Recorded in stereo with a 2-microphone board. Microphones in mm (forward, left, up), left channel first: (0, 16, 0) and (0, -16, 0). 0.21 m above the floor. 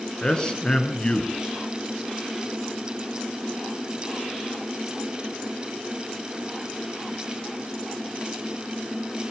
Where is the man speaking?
25° left (ahead or behind), 3 m.